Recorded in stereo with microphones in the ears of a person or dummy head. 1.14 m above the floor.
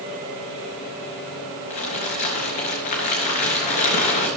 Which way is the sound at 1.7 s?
45° left (ahead or behind).